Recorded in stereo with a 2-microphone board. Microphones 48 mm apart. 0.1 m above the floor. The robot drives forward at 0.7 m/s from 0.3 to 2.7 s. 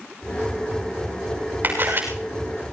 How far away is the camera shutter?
About 6.5 m.